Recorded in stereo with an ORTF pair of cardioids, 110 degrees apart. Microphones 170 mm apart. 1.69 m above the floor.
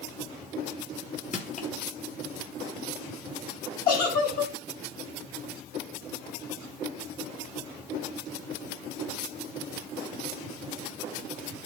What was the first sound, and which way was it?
Crushing, 45° left.